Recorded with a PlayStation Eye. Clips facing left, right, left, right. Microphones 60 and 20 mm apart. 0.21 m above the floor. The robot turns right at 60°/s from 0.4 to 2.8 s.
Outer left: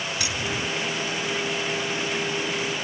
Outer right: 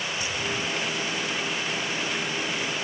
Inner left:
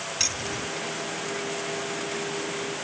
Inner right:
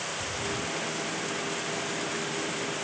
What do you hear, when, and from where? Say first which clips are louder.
0.2 s keys jangling: outer left 1 dB, inner left 7 dB; 75° left (ahead or behind); by 0.7 s 70° left (ahead or behind)